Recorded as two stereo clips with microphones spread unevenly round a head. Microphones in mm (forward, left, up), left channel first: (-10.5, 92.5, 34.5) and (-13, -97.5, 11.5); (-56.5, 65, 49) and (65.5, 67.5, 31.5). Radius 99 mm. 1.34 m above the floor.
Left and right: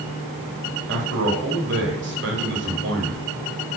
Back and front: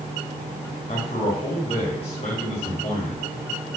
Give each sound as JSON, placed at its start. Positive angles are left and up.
{"t": 0.9, "sound": "a man speaking", "azimuth_deg": -120, "distance_m": 2.5}